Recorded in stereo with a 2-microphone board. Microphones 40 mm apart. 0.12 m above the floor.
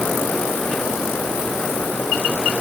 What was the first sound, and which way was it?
Only background noise.